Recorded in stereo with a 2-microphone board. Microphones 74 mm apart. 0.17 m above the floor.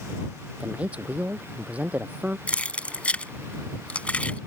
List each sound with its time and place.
0.6 s a man speaking: 20° right (ahead or behind)
2.5 s keys jangling: 20° left (ahead or behind)